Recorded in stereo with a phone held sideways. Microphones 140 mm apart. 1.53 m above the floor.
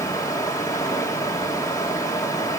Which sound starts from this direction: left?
Running water, at 0.0 s.